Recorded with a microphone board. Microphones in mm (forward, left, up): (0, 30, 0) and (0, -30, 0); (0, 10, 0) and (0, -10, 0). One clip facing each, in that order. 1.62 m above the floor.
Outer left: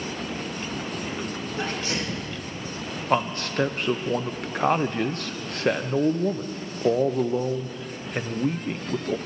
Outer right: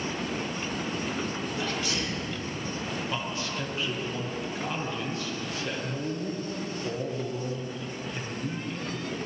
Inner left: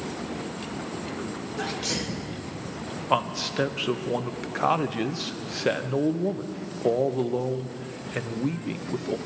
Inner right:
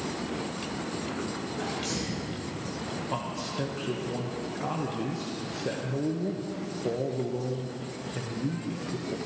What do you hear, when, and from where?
1.6 s a sneeze: 40° left (ahead or behind), 3 m
3.1 s a man speaking: 55° left (ahead or behind), 0.7 m